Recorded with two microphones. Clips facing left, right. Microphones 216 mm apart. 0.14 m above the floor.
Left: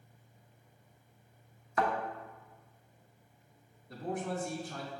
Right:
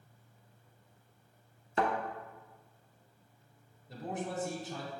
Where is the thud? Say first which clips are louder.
Even; 30° right (ahead or behind), 0.7 m.